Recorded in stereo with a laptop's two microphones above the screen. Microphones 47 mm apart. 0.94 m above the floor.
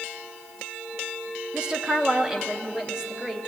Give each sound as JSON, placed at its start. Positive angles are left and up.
{"t": 1.5, "sound": "a woman speaking", "side_deg": -20, "distance_m": 1.0}